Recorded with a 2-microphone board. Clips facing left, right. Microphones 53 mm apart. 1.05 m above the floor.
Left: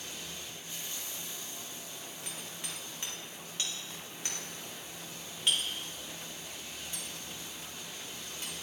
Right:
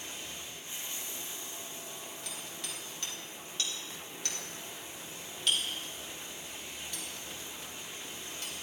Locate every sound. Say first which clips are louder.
0.0 s running water: even; 25° right (ahead or behind), 2.5 m
2.2 s hammering: left 1 dB; 25° left (ahead or behind), 3 m